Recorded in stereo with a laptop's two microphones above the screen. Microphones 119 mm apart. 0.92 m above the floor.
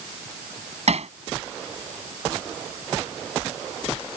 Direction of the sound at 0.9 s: 65° right (ahead or behind).